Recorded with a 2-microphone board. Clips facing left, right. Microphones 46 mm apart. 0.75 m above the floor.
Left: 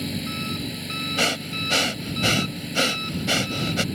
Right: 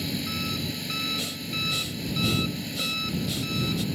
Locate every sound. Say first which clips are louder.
0.0 s an engine running: left 1 dB; 5° left (ahead or behind)
1.2 s breathing: left 7 dB; 80° left